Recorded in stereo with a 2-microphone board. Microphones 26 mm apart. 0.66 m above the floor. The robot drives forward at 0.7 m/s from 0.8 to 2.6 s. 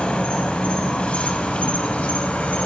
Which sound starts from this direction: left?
An insect, at 0.0 s.